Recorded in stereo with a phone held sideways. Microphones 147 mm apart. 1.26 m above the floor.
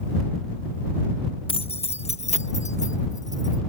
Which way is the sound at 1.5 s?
40° left (ahead or behind).